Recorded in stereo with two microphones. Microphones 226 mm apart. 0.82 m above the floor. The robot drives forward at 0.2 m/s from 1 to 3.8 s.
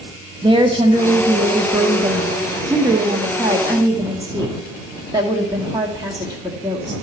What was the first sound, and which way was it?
A woman speaking, 20° right (ahead or behind).